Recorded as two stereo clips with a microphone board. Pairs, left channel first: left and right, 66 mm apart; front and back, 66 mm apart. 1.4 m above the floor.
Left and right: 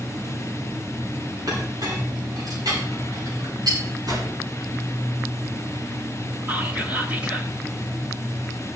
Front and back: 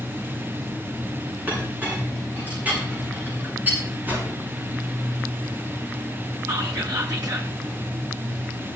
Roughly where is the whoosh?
Behind right.